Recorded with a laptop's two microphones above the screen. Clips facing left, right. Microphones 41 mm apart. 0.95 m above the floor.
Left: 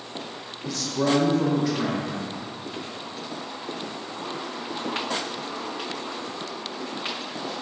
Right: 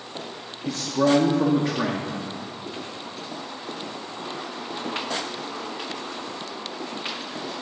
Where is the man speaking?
20° right (ahead or behind), 0.6 m.